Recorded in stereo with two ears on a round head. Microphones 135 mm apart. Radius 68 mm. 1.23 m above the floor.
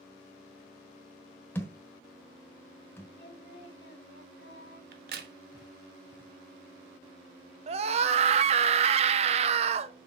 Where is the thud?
15° left (ahead or behind), 1.2 m.